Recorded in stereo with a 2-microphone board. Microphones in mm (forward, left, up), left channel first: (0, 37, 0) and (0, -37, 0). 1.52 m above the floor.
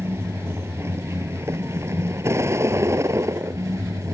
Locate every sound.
0.0 s a vehicle: 35° right (ahead or behind); by 4.1 s 40° right (ahead or behind)